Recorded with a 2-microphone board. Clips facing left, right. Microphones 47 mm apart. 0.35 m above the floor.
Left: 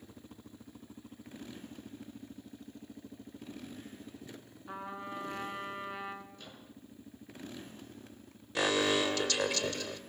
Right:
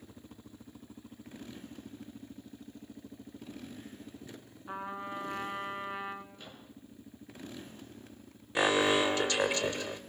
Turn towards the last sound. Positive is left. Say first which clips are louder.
# right 3 dB
turn(degrees=-25)  # may be behind; listen again after turning